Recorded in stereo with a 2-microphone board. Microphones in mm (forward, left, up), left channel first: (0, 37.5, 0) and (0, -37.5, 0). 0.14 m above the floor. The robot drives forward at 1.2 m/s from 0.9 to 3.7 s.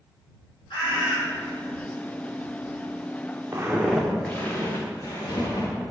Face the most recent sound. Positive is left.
turn(degrees=50)  # may be behind; listen again after turning